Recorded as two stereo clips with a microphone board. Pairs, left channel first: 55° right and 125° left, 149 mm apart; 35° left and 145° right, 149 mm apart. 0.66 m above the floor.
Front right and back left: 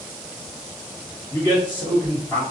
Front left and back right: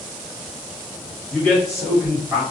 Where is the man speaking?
40° right, 1.3 m; by 2.4 s 105° right, 1.2 m.